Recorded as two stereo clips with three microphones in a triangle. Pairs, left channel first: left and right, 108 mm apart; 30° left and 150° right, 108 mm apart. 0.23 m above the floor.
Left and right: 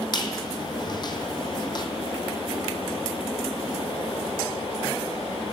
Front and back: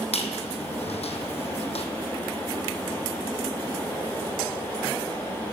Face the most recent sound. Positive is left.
turn(degrees=45)